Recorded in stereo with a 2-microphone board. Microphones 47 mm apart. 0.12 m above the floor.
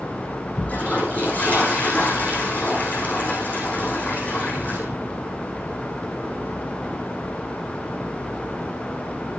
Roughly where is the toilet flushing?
Left.